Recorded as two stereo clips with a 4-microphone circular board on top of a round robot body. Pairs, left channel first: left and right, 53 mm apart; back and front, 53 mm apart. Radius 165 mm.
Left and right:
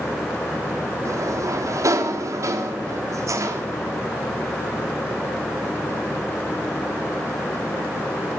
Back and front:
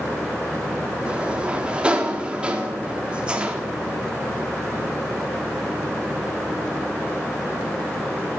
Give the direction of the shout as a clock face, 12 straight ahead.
I don't hear a shout.